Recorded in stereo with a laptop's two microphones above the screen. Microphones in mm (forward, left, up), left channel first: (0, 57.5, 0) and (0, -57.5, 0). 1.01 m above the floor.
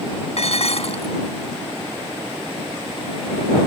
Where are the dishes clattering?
65° left (ahead or behind).